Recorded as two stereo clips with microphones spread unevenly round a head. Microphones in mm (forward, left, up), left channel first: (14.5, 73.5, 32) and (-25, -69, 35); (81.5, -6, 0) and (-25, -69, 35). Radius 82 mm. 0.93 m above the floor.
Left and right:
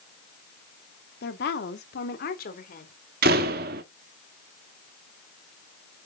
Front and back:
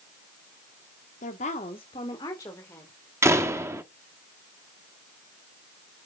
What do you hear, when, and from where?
1.2 s a woman speaking: 60° left, 1.7 m; by 2.9 s 110° left, 3 m
3.2 s a door slam: 80° right, 1.3 m